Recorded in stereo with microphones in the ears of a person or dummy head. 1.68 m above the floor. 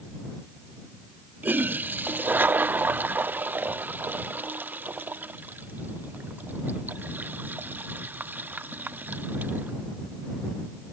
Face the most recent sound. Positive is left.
turn(degrees=-5)  # may be behind; listen again after turning